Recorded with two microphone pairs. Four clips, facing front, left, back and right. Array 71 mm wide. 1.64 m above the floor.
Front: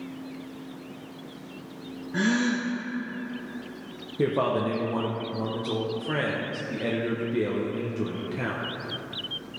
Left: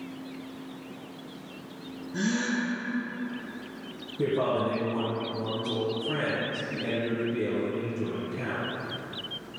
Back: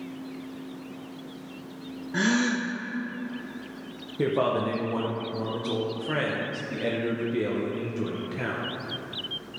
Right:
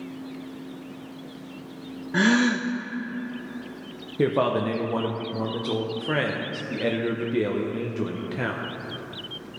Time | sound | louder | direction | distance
2.1 | a gasp | right 8 dB, even | 100° right | 0.6 m
4.2 | a man speaking | right 4 dB, even | 85° right | 0.8 m